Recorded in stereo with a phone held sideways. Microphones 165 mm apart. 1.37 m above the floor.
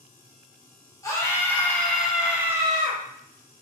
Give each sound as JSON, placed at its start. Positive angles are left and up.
{"t": 1.0, "sound": "a scream", "side_deg": 20, "distance_m": 1.6}